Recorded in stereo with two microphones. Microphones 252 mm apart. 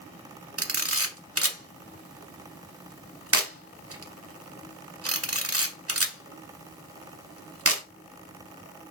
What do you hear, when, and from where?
0.6 s a camera shutter: 65° right (ahead or behind), 0.6 m